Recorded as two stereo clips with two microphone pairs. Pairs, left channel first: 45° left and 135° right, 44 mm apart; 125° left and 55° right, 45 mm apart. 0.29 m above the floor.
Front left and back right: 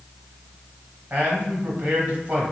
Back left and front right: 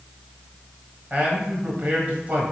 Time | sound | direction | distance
1.1 | a man speaking | 95° right | 1.2 m